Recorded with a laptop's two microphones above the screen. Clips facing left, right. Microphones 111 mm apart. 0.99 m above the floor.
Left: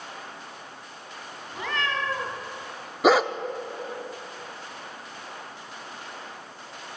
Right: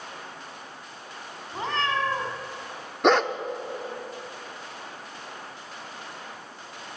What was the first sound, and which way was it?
A cat meowing, 35° right (ahead or behind).